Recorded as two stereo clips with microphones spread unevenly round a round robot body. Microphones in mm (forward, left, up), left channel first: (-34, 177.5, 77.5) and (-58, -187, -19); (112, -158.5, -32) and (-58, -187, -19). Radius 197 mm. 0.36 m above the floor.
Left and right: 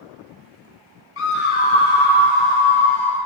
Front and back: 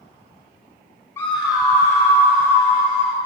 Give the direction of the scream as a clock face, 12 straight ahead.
10 o'clock.